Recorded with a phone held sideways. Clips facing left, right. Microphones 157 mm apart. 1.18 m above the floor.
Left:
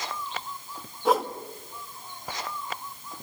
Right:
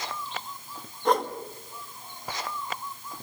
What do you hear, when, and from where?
1.1 s a whoosh: 5° left (ahead or behind), 1.1 m